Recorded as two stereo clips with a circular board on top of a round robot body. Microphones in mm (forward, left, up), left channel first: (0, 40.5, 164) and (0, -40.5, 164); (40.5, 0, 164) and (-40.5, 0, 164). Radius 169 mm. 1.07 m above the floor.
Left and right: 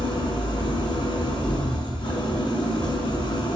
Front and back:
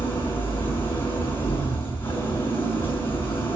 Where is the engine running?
65° left, 6 m.